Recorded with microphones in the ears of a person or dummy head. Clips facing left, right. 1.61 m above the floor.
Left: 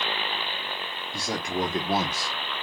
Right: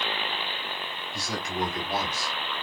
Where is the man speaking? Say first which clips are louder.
Left 3 dB; 50° left (ahead or behind), 2 m; by 2.3 s 60° left (ahead or behind), 0.7 m.